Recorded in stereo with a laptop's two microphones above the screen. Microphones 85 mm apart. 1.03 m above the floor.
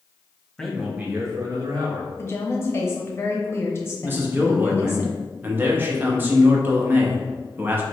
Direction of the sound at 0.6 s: 5° left (ahead or behind).